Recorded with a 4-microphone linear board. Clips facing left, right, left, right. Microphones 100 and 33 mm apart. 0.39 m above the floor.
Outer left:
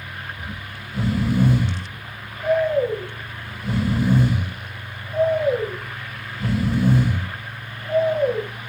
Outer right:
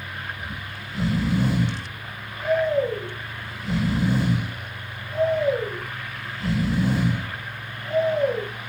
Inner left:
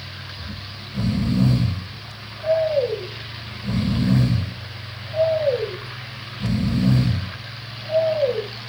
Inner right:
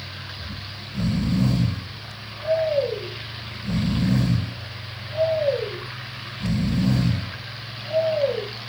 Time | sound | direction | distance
0.4 | snoring | 50° left (ahead or behind) | 4 m